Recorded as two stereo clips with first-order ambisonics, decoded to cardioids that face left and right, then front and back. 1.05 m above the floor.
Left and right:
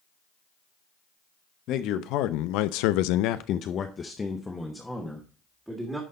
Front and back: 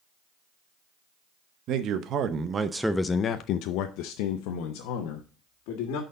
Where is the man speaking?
135° left, 1.0 m; by 6.0 s 5° right, 1.8 m.